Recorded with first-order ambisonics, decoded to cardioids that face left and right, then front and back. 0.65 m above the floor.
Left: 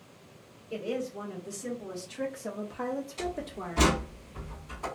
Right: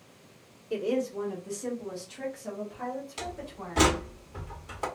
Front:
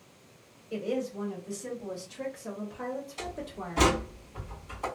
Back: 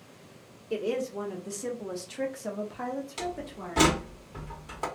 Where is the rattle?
No rattle in this recording.